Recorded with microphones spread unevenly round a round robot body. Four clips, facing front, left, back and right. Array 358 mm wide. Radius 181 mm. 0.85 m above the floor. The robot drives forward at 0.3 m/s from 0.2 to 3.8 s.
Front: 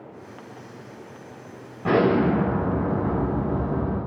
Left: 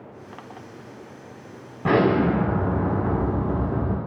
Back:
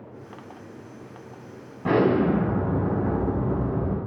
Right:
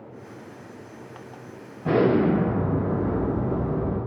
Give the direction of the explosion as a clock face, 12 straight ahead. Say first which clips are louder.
Left 1 dB, front 1 dB; 9 o'clock.